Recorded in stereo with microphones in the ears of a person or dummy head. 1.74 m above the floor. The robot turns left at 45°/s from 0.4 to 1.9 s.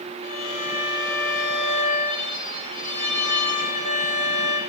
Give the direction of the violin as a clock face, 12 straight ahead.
5 o'clock.